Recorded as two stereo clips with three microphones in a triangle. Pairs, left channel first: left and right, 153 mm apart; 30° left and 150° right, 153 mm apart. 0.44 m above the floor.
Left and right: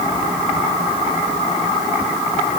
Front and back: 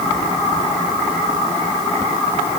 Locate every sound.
Only background noise.